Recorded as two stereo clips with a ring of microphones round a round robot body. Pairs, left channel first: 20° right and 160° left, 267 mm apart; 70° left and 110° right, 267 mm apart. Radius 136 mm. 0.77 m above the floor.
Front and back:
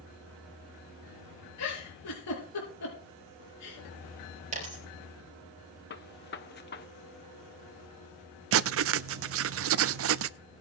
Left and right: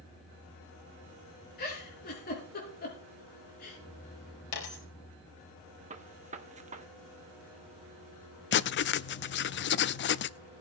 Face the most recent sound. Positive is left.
turn(degrees=120)